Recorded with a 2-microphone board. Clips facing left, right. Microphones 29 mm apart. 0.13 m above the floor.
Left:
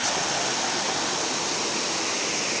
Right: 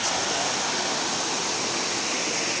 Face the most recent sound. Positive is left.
No sound to turn to.